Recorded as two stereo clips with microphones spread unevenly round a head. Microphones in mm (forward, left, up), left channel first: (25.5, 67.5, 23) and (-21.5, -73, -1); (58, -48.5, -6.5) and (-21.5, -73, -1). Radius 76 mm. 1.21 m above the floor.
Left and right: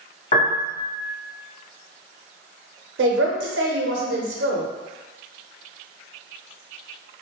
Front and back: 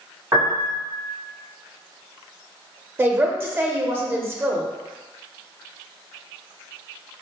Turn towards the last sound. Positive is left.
turn(degrees=-95)